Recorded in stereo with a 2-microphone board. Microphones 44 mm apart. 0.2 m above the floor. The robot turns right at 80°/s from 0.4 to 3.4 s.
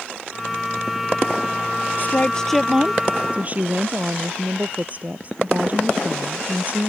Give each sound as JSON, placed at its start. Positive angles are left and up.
{"t": 2.0, "sound": "a woman speaking", "azimuth_deg": 130}
{"t": 3.3, "sound": "a woman speaking", "side_deg": -30}